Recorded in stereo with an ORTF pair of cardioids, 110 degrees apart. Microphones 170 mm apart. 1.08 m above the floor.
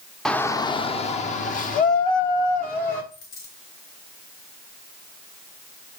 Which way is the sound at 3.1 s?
60° left.